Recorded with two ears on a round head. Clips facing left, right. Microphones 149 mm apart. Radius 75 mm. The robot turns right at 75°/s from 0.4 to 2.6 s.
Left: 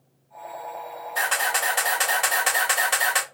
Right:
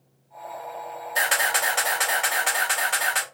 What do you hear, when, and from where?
1.1 s a camera shutter: 30° right, 3 m; by 3.2 s 80° left, 3 m